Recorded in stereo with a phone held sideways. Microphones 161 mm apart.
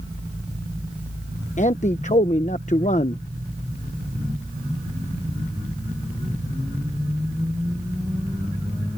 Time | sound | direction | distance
1.6 | a man speaking | 50° left (ahead or behind) | ?